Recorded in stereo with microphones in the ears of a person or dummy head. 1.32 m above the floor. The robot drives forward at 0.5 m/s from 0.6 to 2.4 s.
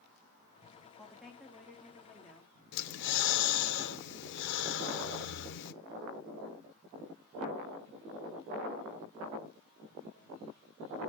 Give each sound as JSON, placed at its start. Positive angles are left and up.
{"t": 1.0, "sound": "a woman speaking", "side_deg": 0, "distance_m": 2.5}
{"t": 2.7, "sound": "breathing", "side_deg": 60, "distance_m": 0.9}